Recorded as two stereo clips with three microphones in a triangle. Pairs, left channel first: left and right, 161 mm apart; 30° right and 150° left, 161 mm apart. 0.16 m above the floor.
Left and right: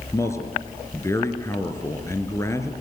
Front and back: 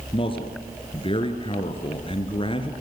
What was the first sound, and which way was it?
A man speaking, 20° left.